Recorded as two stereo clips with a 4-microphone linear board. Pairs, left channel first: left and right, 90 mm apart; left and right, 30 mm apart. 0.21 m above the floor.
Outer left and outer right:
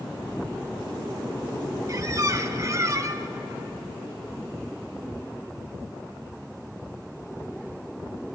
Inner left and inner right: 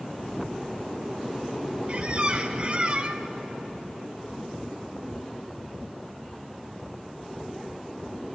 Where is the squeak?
40° right (ahead or behind), 0.6 m.